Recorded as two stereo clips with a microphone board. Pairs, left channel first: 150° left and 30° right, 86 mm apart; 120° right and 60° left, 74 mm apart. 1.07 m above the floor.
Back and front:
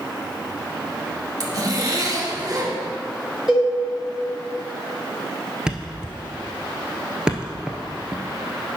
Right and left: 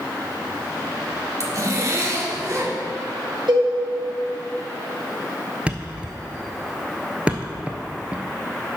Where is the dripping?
I don't hear dripping.